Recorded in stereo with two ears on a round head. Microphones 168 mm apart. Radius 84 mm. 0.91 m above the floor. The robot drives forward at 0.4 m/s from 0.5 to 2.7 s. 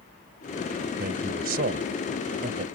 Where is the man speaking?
55° right (ahead or behind); by 2.6 s 50° right (ahead or behind).